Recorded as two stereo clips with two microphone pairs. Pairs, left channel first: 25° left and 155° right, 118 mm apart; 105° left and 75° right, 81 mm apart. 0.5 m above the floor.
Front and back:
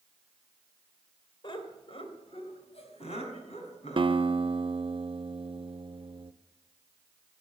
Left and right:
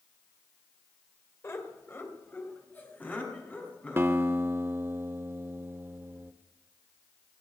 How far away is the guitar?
About 0.5 m.